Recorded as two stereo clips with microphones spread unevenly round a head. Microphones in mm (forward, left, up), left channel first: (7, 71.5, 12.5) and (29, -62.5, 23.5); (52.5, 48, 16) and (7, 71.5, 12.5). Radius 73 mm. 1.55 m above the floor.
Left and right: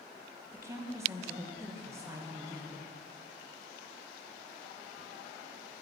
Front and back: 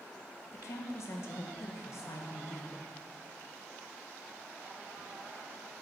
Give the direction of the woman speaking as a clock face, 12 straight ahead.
12 o'clock.